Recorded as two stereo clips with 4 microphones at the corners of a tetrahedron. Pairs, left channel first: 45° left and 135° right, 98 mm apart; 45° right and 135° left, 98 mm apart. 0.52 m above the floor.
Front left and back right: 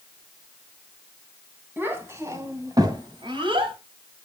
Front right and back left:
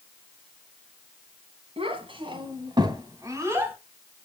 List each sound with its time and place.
1.8 s a child speaking: 155° left, 2.5 m; by 3.8 s 155° right, 1.9 m